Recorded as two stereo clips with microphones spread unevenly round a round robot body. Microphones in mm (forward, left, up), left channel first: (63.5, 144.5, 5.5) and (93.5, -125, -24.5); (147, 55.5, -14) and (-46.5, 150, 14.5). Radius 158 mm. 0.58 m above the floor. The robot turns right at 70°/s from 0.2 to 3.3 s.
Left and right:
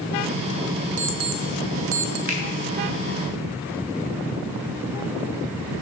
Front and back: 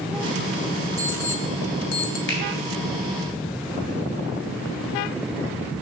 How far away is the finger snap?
About 3 m.